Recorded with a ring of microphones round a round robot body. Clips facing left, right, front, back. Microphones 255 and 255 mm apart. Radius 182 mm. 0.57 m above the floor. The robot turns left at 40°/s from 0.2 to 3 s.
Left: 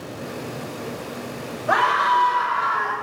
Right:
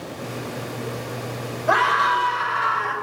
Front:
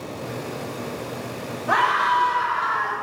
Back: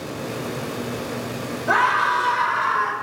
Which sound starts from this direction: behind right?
A scream, at 1.7 s.